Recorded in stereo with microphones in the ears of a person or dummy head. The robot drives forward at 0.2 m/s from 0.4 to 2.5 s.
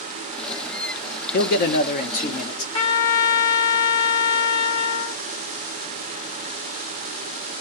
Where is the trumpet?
35° left (ahead or behind), 1.6 m.